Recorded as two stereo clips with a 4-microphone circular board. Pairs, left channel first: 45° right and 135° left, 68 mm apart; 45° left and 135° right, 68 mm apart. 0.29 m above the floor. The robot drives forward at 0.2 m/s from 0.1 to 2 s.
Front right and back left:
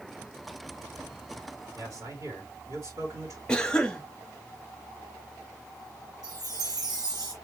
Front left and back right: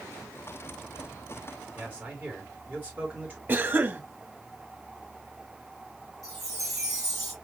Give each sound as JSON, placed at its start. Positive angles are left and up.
{"t": 1.8, "sound": "a man speaking", "azimuth_deg": 160, "distance_m": 3.0}
{"t": 3.5, "sound": "a cough", "azimuth_deg": -115, "distance_m": 1.0}
{"t": 6.2, "sound": "a chime", "azimuth_deg": 130, "distance_m": 3.0}